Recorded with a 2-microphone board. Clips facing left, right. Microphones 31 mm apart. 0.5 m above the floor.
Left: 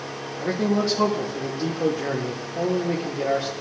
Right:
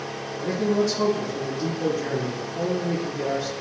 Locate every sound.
0.4 s a man speaking: 25° left (ahead or behind), 0.9 m